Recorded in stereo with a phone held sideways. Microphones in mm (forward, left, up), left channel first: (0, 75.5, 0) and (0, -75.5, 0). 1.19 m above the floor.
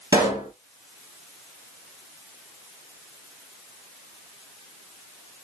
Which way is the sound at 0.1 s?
20° right (ahead or behind).